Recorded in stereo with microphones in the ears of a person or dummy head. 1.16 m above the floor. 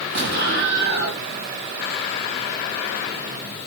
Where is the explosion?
55° right (ahead or behind), 1.6 m.